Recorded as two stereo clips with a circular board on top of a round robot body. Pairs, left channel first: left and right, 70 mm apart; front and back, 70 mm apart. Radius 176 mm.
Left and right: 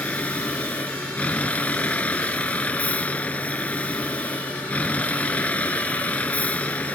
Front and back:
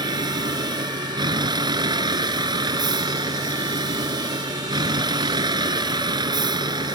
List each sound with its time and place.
0.0 s a vehicle: 160° left